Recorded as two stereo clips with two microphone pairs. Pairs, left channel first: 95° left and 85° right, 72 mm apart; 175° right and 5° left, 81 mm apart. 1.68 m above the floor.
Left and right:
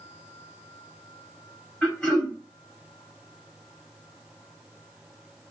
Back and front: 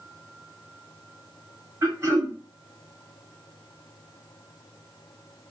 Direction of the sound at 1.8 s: 25° left.